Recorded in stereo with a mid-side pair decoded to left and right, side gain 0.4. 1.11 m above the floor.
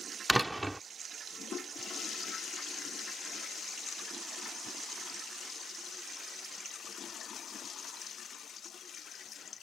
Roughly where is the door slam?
Ahead.